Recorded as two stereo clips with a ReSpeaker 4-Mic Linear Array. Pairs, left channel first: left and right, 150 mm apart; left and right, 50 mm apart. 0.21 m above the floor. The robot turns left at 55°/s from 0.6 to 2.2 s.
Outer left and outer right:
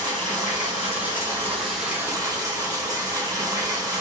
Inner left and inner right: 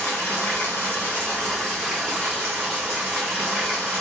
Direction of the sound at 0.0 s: 60° left.